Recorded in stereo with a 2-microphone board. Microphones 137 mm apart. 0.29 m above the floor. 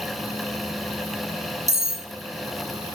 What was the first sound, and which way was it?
Cutlery clinking, 25° left (ahead or behind).